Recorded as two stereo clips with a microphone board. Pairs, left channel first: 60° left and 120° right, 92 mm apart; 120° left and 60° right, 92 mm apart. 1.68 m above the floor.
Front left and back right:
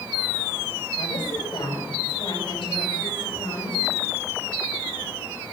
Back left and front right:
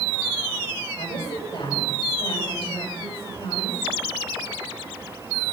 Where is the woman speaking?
95° left, 6.5 m.